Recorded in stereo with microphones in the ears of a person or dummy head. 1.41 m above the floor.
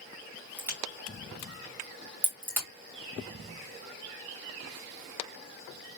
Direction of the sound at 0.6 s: 10° right (ahead or behind).